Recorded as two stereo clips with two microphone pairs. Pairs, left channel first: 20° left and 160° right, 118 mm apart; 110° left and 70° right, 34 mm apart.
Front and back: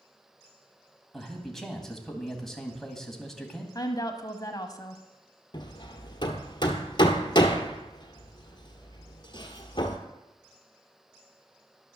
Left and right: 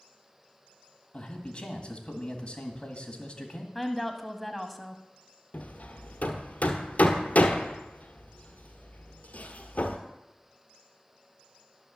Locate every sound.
1.1 s a man speaking: 105° left, 1.8 m
3.8 s a woman speaking: 25° left, 1.2 m
5.5 s hammering: 75° left, 1.2 m